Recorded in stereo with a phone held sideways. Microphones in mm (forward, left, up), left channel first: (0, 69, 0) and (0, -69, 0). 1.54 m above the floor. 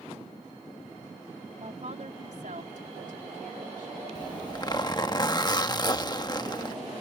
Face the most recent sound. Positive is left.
turn(degrees=30)  # may be behind; listen again after turning